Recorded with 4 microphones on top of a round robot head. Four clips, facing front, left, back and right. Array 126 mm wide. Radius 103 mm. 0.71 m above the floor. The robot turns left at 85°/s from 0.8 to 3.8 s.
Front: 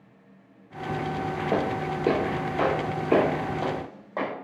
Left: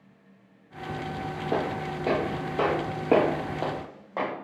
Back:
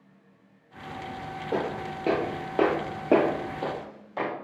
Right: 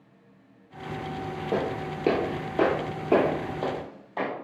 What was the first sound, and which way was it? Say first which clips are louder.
Footsteps: even, front 2 dB; 5° right.